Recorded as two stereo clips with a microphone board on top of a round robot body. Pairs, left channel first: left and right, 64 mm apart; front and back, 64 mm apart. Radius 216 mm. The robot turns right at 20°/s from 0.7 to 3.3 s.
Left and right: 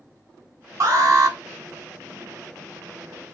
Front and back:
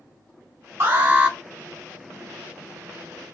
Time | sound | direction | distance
0.8 | an alarm | 125° right | 2.5 m